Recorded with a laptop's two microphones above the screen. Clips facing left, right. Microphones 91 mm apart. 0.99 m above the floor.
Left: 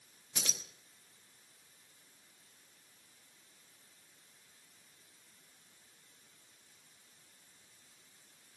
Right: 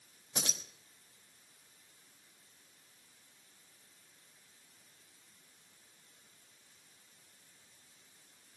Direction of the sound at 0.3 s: 35° right (ahead or behind).